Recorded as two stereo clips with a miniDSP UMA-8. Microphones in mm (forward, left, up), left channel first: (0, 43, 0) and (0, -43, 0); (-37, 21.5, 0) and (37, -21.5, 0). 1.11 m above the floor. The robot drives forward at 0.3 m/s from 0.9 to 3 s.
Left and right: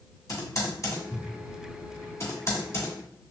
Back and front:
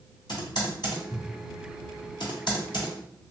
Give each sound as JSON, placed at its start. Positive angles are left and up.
{"t": 0.3, "sound": "typing on a keyboard", "azimuth_deg": 135, "distance_m": 1.8}